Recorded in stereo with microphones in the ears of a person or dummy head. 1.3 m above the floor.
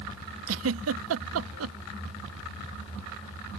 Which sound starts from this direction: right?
A giggle, at 0.5 s.